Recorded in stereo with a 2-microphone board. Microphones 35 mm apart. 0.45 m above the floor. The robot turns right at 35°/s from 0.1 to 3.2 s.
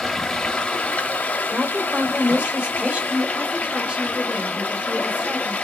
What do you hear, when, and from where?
0.0 s running water: 10° left, 0.9 m; by 5.6 s 120° left, 0.9 m
1.5 s a woman speaking: 85° right, 1.8 m; by 3.0 s 35° right, 1.8 m
3.1 s a woman speaking: 25° right (ahead or behind), 1.6 m